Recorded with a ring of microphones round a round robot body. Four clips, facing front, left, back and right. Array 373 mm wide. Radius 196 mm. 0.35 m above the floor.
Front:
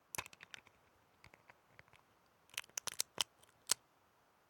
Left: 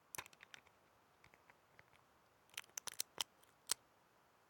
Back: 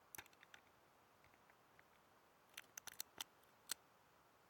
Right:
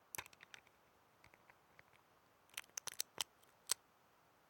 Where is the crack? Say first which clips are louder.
Even, front 12 dB; straight ahead.